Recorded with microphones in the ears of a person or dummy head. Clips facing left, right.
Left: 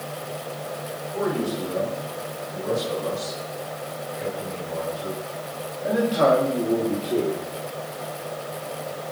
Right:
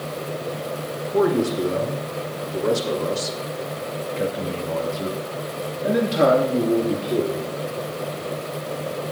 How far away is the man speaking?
About 5 m.